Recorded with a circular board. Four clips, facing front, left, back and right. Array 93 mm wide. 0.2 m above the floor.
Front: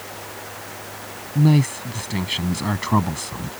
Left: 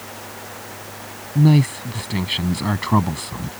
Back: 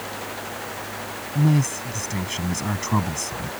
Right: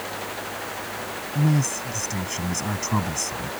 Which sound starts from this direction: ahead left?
A man speaking, at 1.4 s.